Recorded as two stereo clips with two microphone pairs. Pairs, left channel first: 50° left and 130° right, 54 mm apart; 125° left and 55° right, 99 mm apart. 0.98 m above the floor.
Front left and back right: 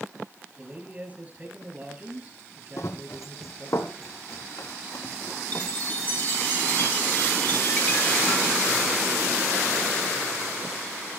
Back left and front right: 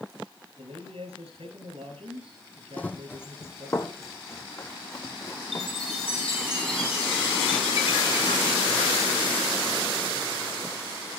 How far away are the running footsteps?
About 1.7 m.